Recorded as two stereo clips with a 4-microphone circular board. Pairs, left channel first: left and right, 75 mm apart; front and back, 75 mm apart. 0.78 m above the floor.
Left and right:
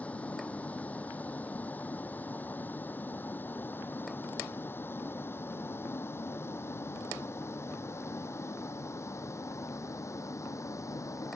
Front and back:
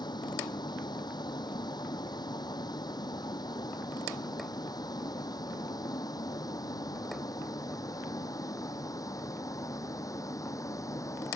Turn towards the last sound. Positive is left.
turn(degrees=45)